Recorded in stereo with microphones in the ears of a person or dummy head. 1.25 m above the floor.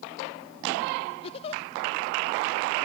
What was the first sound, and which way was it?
A giggle, 30° left (ahead or behind).